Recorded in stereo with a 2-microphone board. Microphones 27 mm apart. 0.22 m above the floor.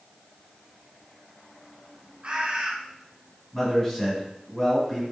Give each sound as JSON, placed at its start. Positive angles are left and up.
{"t": 2.2, "sound": "a bird", "side_deg": -50, "distance_m": 1.2}
{"t": 3.5, "sound": "a man speaking", "side_deg": 15, "distance_m": 1.6}